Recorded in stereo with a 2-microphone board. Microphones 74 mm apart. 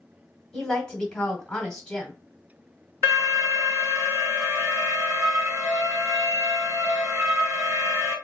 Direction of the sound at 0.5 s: 10° left (ahead or behind).